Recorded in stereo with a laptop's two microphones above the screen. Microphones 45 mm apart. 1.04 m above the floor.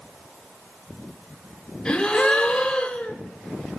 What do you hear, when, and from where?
1.9 s a gasp: 20° left (ahead or behind), 3 m